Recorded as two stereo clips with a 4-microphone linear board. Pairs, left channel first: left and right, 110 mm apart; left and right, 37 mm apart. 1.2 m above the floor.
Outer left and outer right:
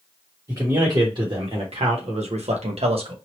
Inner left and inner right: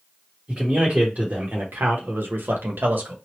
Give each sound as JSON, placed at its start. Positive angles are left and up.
{"t": 0.5, "sound": "a man speaking", "side_deg": -35, "distance_m": 1.4}